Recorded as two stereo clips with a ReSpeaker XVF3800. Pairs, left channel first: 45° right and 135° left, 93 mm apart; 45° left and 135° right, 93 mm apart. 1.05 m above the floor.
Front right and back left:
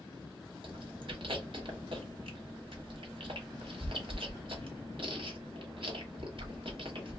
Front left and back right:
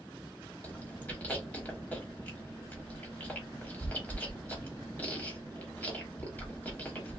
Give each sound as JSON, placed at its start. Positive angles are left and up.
{"t": 0.6, "sound": "chewing", "azimuth_deg": 120, "distance_m": 1.1}